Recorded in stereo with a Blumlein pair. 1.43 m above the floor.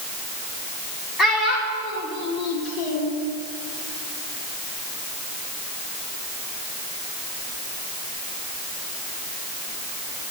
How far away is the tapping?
I don't hear tapping.